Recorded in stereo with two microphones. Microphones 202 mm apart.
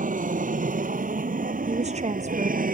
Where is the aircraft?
40° right (ahead or behind); by 2.8 s 45° right (ahead or behind).